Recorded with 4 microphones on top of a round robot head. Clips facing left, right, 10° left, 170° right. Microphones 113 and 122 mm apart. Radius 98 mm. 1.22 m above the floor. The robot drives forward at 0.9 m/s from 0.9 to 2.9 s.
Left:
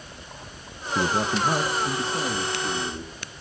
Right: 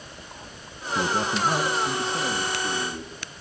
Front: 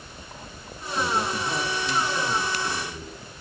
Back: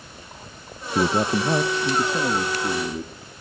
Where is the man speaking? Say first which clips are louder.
Left 1 dB, back 5 dB; 175° left, 1.1 m; by 3.1 s straight behind, 3 m.